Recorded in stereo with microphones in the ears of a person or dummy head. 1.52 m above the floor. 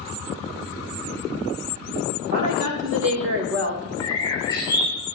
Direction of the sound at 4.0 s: 25° left (ahead or behind).